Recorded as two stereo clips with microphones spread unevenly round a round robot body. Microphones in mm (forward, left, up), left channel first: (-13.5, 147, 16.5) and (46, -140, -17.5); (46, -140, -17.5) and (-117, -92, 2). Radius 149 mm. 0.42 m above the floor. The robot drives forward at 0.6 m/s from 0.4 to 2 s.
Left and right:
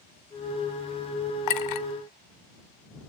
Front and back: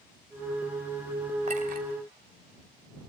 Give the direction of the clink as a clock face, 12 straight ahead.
9 o'clock.